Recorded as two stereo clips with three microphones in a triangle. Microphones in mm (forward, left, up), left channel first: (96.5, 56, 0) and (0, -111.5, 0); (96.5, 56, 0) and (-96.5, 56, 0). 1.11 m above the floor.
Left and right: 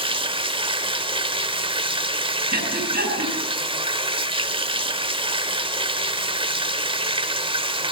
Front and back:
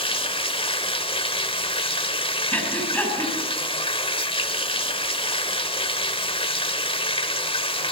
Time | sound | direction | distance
0.0 | running water | 60° right | 1.5 m
2.5 | breathing | 85° right | 8 m